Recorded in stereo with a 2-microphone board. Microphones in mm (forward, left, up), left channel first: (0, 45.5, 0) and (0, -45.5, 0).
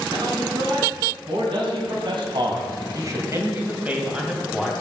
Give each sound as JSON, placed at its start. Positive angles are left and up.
{"t": 0.1, "sound": "a man speaking", "side_deg": -70, "distance_m": 5.0}